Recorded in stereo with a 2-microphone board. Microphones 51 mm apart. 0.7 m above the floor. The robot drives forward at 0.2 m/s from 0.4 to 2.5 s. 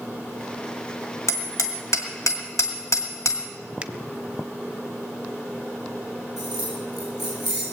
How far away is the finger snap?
About 0.6 m.